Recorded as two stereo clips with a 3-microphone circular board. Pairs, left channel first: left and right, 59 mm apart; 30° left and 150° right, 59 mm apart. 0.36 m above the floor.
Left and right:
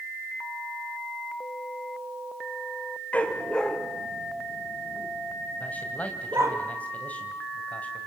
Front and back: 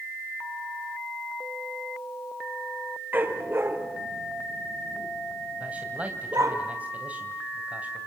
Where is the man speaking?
150° left, 2.5 m.